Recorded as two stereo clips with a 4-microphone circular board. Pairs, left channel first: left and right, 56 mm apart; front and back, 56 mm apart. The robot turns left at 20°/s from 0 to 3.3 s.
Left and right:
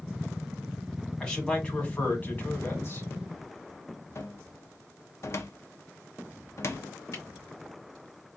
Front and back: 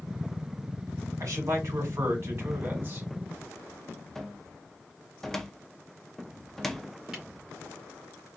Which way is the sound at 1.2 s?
165° left.